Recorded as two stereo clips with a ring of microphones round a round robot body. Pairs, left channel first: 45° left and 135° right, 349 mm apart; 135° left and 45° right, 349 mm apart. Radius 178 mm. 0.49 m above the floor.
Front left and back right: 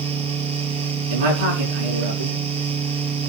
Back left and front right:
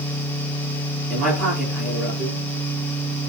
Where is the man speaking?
135° right, 9.5 m.